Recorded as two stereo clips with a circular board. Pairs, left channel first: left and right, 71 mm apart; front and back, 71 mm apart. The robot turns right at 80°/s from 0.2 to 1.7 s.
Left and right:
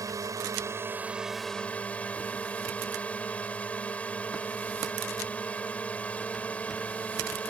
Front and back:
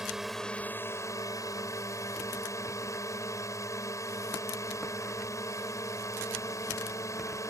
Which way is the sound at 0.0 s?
95° right.